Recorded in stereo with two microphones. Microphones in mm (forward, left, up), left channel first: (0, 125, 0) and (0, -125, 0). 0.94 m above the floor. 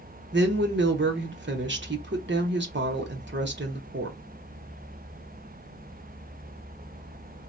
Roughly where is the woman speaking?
Right.